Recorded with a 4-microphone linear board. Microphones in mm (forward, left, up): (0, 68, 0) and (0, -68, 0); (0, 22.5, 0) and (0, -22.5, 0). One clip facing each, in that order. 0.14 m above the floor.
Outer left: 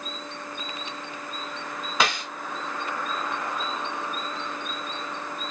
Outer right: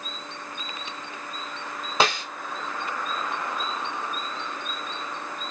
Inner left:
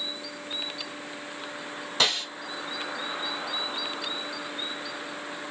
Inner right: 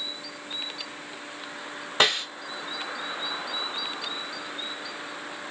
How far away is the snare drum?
About 1.8 m.